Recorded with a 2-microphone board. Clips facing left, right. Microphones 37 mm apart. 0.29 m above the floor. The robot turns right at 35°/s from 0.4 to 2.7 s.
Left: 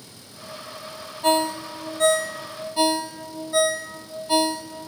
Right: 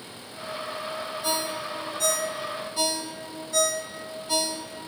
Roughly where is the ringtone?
Left.